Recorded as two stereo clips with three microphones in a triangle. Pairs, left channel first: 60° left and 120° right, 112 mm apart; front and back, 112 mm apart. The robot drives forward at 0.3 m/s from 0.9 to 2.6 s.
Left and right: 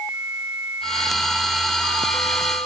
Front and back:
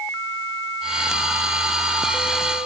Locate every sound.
Only background noise.